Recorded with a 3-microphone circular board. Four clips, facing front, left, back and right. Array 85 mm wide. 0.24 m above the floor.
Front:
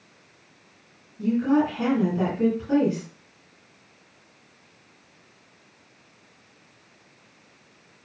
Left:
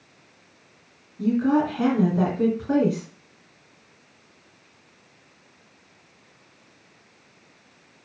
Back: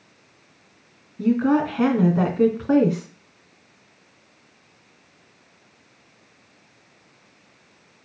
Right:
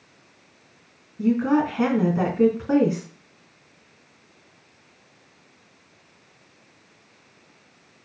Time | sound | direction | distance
1.2 | a woman speaking | 160° right | 3 m